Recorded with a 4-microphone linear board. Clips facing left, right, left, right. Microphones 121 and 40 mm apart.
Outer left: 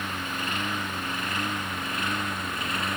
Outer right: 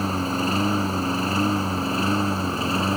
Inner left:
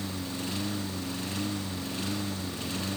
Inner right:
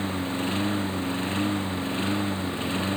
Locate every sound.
0.0 s a lawn mower: 35° right (ahead or behind); by 3.0 s 30° right (ahead or behind)